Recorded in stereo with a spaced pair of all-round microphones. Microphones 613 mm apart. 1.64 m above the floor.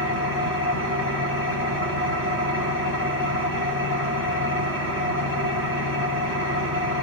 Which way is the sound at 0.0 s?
20° right (ahead or behind).